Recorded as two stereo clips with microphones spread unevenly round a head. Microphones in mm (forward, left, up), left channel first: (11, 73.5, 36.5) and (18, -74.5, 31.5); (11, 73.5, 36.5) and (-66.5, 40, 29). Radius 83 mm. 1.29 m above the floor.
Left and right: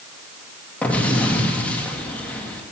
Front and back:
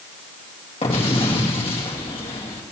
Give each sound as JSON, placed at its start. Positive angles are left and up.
{"t": 0.8, "sound": "an explosion", "azimuth_deg": 10, "distance_m": 2.5}